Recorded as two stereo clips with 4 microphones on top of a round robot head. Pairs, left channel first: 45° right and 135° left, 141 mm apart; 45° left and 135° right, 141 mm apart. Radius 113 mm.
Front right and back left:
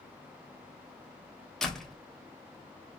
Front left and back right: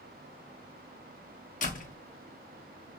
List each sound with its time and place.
1.6 s a door slam: 40° left, 1.0 m